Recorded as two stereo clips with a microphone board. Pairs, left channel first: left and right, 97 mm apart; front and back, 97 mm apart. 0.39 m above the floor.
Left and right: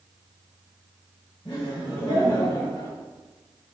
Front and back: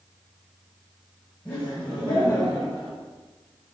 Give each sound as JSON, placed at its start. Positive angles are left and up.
{"t": 1.4, "sound": "laughter", "azimuth_deg": 75, "distance_m": 1.7}